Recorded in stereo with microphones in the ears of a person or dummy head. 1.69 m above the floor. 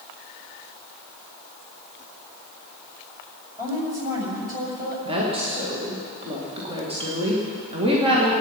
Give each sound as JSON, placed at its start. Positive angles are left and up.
{"t": 3.6, "sound": "a woman speaking", "side_deg": -15, "distance_m": 7.0}
{"t": 5.0, "sound": "a woman speaking", "side_deg": -35, "distance_m": 2.5}